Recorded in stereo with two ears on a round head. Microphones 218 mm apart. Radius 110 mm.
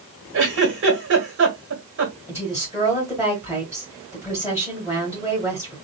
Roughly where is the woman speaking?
Centre.